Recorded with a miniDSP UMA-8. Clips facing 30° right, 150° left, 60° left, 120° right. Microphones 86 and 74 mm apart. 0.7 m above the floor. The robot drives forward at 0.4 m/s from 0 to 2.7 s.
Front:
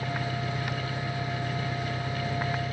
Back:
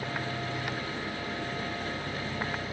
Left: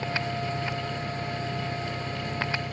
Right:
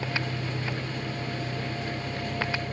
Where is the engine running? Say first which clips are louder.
Front 2 dB, left 2 dB; 10° right, 3 m.